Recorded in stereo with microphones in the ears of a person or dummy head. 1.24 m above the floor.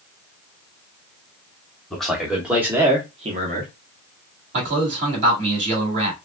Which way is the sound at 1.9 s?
5° left (ahead or behind).